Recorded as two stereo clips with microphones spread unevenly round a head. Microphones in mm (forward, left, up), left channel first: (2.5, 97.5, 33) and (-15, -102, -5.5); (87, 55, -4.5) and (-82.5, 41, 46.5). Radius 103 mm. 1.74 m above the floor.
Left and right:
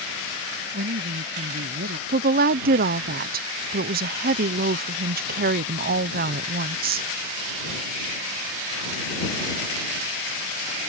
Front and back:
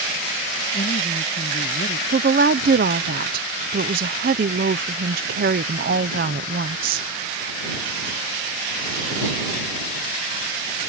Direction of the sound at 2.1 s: 145° right.